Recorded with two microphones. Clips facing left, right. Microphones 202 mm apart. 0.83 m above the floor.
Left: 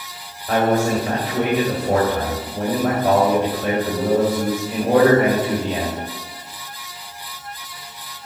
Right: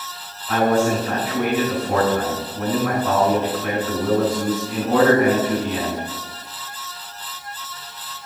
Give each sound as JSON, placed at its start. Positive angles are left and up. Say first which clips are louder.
{"t": 0.5, "sound": "a man speaking", "louder": "even", "side_deg": 65, "distance_m": 3.5}